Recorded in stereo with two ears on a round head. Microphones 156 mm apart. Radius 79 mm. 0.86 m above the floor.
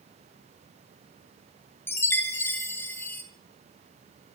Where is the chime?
15° left (ahead or behind), 2.5 m.